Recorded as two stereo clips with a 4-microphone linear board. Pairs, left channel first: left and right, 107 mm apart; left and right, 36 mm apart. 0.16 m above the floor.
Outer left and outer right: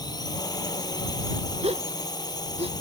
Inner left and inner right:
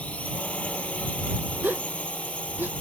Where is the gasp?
80° right.